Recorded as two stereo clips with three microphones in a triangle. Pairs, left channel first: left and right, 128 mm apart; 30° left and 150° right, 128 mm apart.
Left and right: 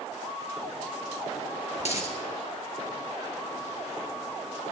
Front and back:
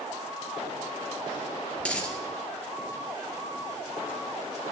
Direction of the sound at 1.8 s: 110° left.